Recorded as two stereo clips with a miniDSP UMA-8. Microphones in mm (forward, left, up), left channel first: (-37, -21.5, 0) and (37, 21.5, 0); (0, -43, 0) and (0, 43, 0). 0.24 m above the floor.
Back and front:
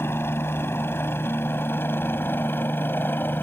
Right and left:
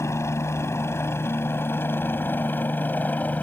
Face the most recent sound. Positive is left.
turn(degrees=-130)